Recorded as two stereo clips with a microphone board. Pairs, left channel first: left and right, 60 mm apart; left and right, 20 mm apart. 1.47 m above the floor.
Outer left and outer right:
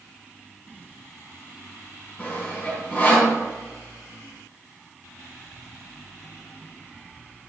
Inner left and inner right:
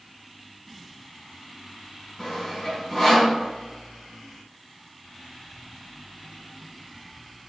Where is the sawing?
25° left (ahead or behind), 3.5 m.